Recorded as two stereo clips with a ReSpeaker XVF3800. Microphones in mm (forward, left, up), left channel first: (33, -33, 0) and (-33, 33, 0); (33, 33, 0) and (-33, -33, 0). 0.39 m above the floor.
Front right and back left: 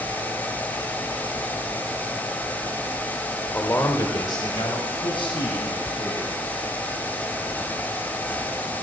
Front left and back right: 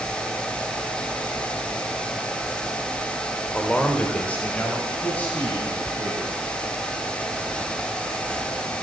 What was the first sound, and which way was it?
A man speaking, 15° right.